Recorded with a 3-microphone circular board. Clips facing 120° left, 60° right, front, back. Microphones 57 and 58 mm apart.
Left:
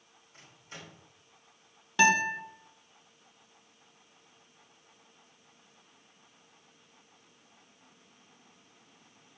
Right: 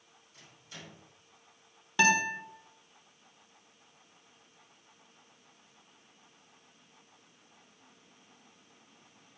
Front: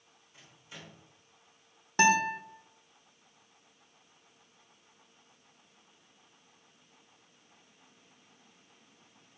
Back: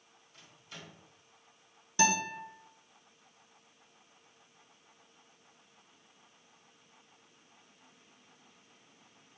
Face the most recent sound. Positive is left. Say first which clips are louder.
# left 2 dB, front 5 dB
turn(degrees=30)